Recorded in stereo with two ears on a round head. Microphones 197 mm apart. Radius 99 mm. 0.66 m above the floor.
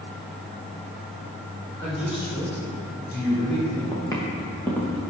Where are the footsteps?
15° left (ahead or behind), 3.5 m; by 5.1 s centre (ahead or behind), 3 m.